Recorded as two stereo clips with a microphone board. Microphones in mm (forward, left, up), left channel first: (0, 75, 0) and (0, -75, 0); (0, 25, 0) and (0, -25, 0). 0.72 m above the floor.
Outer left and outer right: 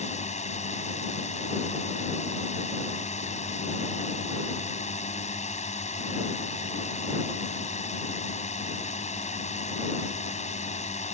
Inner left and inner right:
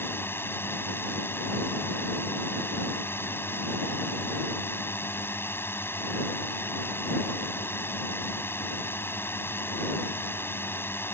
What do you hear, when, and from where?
0.0 s a drone: 50° left (ahead or behind)